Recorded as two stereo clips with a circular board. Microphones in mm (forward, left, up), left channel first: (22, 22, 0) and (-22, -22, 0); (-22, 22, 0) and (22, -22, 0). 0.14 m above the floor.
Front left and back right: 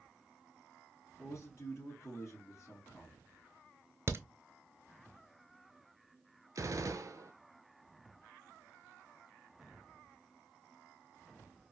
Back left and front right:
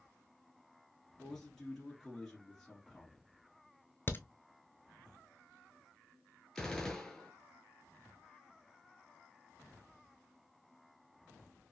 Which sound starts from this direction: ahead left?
A man speaking, at 1.2 s.